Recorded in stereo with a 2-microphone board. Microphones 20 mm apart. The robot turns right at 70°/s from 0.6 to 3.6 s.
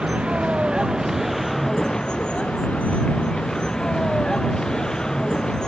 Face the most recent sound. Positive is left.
turn(degrees=35)  # may be behind; listen again after turning